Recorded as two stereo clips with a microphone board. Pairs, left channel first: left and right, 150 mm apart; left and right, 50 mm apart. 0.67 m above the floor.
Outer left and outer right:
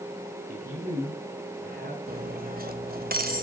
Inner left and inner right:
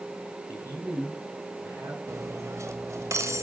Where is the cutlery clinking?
85° right, 1.9 m.